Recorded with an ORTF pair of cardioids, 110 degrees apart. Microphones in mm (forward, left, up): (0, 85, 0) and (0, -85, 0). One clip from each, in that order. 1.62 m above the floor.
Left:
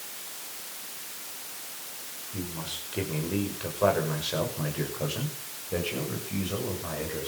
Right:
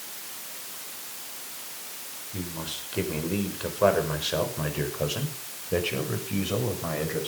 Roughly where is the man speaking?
Ahead.